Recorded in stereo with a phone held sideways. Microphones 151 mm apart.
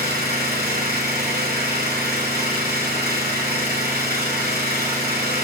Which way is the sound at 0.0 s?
75° right (ahead or behind).